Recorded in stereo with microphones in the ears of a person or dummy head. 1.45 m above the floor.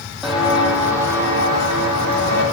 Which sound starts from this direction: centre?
Footsteps, at 0.2 s.